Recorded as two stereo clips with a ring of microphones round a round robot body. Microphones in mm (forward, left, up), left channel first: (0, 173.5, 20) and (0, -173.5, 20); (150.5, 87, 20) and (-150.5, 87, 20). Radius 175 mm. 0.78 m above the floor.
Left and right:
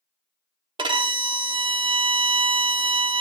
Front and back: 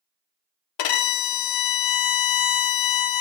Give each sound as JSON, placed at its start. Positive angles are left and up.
{"t": 0.8, "sound": "a violin", "azimuth_deg": -15, "distance_m": 0.8}